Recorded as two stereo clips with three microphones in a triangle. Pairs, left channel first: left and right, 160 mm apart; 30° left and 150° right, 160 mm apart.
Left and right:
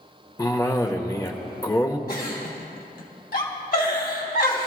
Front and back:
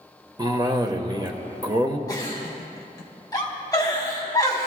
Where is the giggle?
95° left, 2 m.